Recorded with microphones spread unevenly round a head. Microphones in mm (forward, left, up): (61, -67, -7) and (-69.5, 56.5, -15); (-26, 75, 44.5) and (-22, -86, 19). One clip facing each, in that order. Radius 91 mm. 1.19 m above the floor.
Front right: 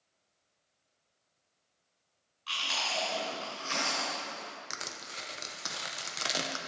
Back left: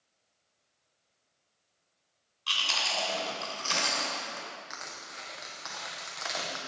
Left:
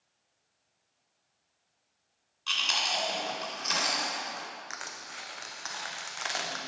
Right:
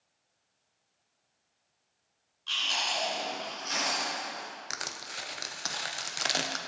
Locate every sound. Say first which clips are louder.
2.5 s chewing: back left 1 dB, left 1 dB; 100° left, 2.5 m
4.7 s crushing: front right 1 dB, right 2 dB; 85° right, 0.7 m